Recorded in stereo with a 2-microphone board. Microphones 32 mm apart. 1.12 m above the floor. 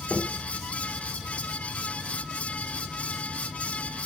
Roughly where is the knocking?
Left.